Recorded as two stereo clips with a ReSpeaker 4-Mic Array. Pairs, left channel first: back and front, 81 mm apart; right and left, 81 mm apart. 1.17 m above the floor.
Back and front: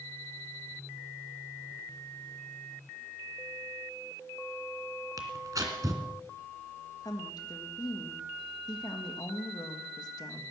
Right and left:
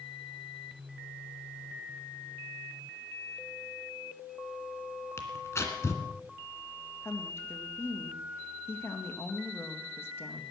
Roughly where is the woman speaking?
Behind right.